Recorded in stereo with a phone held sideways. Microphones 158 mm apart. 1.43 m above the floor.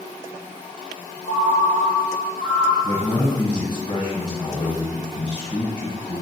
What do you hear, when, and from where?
1.2 s a ringtone: 25° left (ahead or behind), 1.7 m
2.8 s a man speaking: 30° left (ahead or behind), 1.0 m